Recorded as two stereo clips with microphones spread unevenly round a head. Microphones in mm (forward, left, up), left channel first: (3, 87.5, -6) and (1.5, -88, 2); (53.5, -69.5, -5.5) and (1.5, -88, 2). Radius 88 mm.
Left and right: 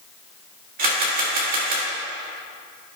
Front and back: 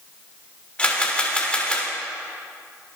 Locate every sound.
0.8 s a camera shutter: 50° right, 3 m